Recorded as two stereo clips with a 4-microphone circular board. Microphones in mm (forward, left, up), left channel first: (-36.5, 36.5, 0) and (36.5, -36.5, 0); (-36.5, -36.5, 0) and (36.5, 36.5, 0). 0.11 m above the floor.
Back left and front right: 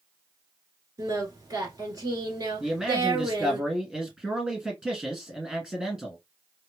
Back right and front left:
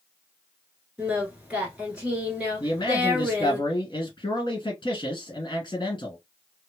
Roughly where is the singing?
Ahead right.